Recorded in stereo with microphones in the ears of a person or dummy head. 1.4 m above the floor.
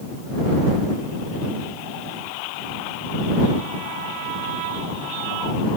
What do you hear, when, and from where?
Only background noise.